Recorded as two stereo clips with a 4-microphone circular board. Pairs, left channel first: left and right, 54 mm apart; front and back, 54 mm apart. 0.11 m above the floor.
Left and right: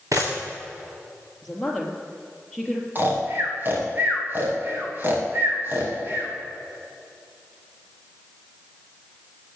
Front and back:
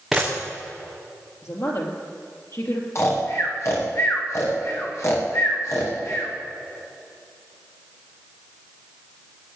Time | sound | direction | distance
0.1 | a camera shutter | 95° right | 4 m
1.4 | a woman speaking | 5° left | 3 m
3.0 | snoring | 40° right | 4.5 m